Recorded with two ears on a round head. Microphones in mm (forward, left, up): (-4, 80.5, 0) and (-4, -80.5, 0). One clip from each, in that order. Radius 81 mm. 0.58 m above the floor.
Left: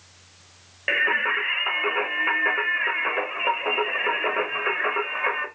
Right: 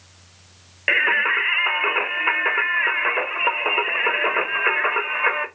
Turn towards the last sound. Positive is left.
turn(degrees=-25)  # may be behind; listen again after turning